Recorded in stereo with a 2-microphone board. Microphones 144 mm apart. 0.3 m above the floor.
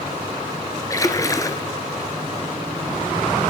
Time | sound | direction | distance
0.9 | a splash | 25° left (ahead or behind) | 1.0 m